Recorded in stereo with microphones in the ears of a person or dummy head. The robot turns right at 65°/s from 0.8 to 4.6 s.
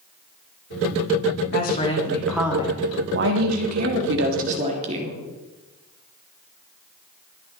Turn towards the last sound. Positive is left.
turn(degrees=-35)